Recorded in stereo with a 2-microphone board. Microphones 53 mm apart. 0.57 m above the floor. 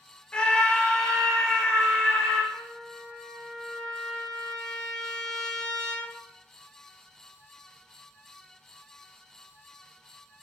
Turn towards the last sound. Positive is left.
turn(degrees=5)  # may be behind; listen again after turning